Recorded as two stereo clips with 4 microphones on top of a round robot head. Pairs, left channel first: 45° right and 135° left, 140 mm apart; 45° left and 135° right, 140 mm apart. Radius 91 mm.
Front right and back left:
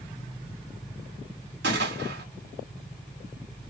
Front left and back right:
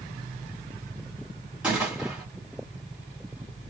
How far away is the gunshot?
About 1.6 m.